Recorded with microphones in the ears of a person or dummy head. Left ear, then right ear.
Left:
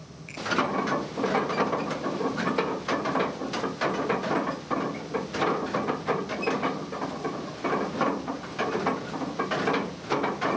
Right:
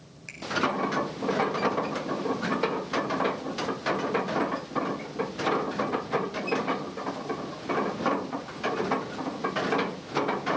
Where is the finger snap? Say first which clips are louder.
Left 2 dB; 35° right (ahead or behind), 8 m.